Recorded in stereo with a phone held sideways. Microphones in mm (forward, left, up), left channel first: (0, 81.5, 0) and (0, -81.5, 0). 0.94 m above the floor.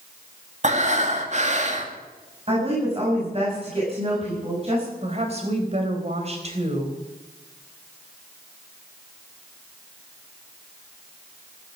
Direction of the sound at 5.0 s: 40° right (ahead or behind).